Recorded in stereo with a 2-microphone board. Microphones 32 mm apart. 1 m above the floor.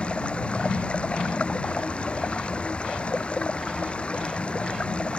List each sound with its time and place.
0.0 s running water: 35° left (ahead or behind)